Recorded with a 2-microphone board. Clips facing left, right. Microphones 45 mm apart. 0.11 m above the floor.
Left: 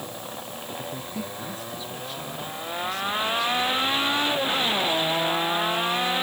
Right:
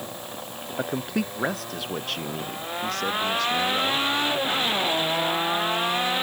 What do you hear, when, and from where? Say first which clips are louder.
0.8 s a man speaking: right 9 dB; 70° right (ahead or behind); by 4.1 s 60° right (ahead or behind)